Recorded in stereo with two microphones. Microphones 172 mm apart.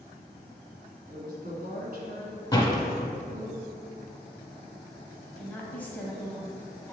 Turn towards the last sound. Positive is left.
turn(degrees=10)  # may be behind; listen again after turning